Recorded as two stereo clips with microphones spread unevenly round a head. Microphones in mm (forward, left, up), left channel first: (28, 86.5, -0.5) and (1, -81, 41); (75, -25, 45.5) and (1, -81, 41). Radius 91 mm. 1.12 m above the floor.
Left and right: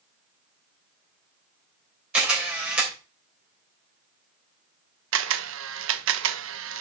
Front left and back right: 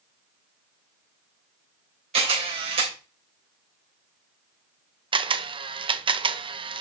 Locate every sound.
2.1 s a camera shutter: 175° left, 3.5 m
5.1 s a camera shutter: 120° right, 0.9 m